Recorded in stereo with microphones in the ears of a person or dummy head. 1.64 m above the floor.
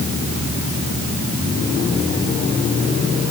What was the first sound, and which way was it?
Only background noise.